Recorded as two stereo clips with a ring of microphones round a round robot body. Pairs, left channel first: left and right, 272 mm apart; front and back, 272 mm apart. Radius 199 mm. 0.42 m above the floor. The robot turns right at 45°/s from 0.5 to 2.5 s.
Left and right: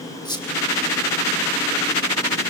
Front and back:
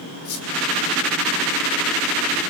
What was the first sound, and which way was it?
A squeak, 15° left.